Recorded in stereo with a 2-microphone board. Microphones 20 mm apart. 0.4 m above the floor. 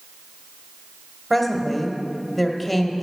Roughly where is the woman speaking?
Centre.